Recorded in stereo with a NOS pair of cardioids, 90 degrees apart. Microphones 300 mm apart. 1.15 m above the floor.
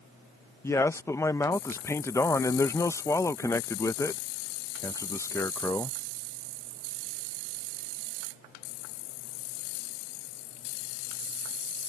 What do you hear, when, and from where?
0.6 s a man speaking: 10° left